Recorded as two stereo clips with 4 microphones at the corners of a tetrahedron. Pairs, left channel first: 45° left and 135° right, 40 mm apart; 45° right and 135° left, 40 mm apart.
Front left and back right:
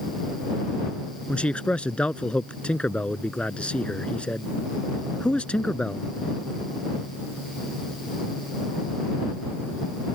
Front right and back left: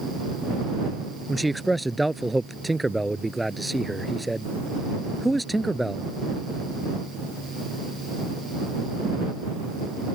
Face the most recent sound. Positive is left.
turn(degrees=45)